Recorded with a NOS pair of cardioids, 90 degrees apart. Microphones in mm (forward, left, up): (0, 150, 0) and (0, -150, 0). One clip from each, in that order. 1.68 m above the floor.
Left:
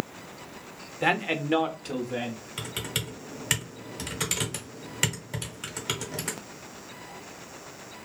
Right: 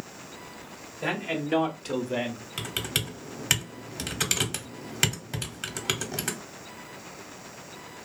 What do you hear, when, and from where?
1.0 s a man speaking: 40° left, 0.6 m; by 2.4 s 30° right, 0.7 m
2.6 s typing on a keyboard: 20° right, 0.8 m